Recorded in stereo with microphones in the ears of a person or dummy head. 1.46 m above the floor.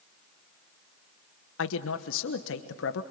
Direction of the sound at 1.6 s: 80° left.